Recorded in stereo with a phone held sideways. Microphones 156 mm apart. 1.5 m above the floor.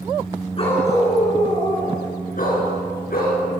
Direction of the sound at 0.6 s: 35° left (ahead or behind).